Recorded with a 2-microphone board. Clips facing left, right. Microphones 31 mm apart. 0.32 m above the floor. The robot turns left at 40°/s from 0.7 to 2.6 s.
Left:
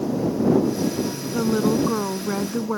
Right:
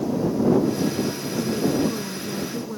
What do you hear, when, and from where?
1.3 s a woman speaking: 125° left; by 2.8 s 70° left